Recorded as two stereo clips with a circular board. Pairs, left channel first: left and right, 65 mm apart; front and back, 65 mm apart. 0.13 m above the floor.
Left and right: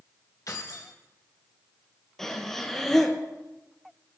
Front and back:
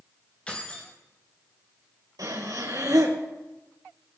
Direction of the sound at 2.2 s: 175° left.